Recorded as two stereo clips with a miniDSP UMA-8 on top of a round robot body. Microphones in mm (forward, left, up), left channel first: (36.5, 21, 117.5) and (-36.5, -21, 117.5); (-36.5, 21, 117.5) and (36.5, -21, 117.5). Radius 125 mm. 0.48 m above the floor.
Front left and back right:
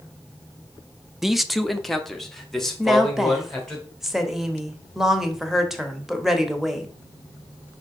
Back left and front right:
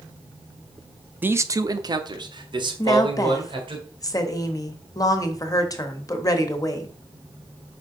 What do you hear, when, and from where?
1.2 s a man speaking: 70° right, 0.7 m; by 3.8 s 55° right, 3 m
2.8 s a woman speaking: 125° left, 1.4 m